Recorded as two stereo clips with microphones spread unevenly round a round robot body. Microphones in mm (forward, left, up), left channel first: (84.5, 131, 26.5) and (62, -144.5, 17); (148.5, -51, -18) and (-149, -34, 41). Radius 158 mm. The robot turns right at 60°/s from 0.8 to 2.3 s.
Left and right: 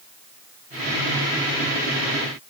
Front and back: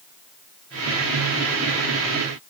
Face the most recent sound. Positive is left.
No sound to turn to.